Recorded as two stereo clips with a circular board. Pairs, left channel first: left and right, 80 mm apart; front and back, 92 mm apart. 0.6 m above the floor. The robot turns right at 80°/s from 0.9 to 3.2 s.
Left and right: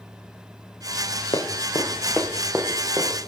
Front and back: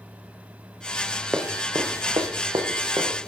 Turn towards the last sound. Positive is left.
turn(degrees=-100)